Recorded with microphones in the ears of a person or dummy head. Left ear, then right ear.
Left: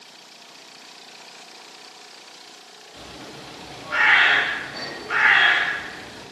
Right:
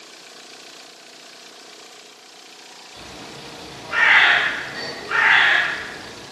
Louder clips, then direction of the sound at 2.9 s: Right 1 dB; 20° left (ahead or behind).